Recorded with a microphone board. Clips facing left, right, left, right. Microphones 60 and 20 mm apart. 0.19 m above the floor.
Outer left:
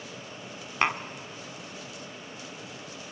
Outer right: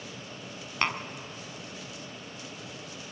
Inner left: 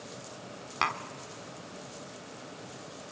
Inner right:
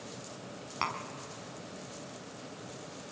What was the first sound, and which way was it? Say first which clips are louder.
Tapping: outer left 3 dB, inner left 4 dB; 15° left (ahead or behind).